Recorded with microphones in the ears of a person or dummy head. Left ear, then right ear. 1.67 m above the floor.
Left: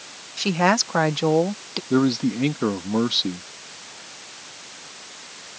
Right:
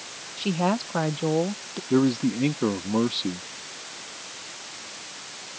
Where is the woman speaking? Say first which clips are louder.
Left 6 dB; 55° left (ahead or behind); by 1.8 s 65° left (ahead or behind).